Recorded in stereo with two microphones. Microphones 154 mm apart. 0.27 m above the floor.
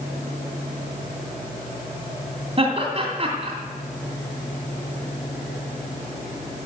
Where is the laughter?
40° right (ahead or behind), 2.5 m.